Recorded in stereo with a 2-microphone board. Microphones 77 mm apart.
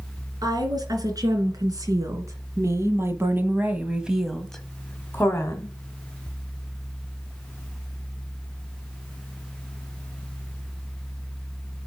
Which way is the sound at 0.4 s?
60° right (ahead or behind).